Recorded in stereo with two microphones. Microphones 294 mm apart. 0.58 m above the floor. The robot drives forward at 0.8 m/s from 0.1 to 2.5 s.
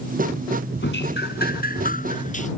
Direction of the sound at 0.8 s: 40° left (ahead or behind).